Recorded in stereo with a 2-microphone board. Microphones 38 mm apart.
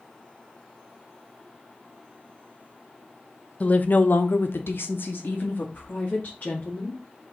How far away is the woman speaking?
About 1.0 m.